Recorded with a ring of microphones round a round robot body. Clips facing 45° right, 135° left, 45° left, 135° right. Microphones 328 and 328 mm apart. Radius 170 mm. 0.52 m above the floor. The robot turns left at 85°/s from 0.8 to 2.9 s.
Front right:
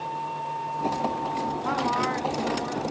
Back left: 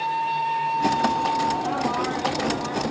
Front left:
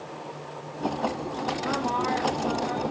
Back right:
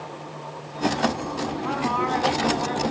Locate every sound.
1.6 s a woman speaking: 60° right, 5 m; by 2.8 s 160° right, 5 m